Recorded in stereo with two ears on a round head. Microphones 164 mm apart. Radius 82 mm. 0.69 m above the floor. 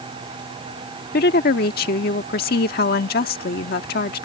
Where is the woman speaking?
55° left (ahead or behind).